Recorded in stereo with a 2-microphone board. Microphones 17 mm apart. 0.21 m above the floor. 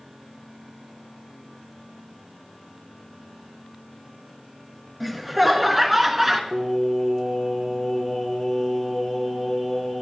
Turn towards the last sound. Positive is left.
turn(degrees=-5)  # may be behind; listen again after turning